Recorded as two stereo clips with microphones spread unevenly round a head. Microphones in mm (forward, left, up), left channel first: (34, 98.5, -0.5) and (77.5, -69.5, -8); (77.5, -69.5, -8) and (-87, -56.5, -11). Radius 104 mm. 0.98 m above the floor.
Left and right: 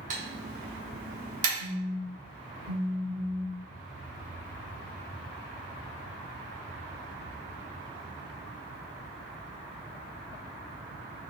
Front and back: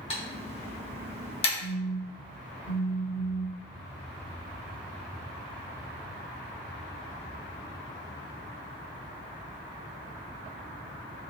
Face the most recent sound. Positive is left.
turn(degrees=-20)